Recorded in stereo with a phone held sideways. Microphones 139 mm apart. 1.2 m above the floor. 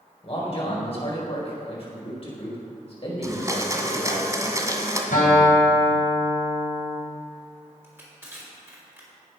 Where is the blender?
25° right (ahead or behind), 1.7 m.